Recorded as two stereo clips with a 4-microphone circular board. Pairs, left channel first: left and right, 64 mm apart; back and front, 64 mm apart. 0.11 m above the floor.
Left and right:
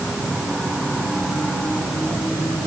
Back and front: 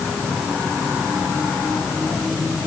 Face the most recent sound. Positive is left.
No sound to turn to.